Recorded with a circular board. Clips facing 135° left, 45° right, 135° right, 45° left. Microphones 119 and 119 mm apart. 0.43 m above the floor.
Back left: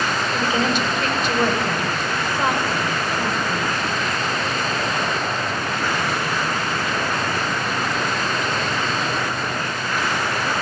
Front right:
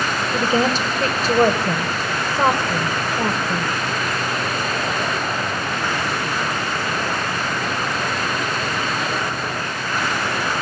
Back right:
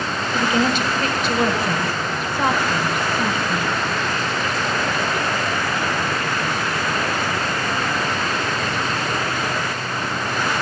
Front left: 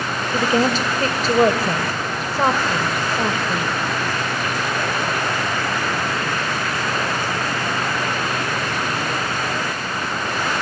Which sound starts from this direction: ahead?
A woman speaking, at 0.3 s.